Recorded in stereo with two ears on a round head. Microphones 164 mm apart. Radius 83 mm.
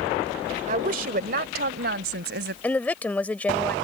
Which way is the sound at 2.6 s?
10° left (ahead or behind).